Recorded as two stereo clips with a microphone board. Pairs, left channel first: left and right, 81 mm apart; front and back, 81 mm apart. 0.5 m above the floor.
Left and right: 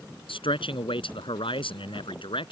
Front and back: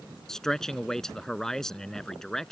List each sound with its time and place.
0.3 s a man speaking: 85° left